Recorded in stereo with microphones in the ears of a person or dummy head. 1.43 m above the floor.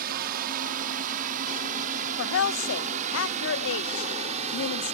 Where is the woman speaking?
75° left (ahead or behind).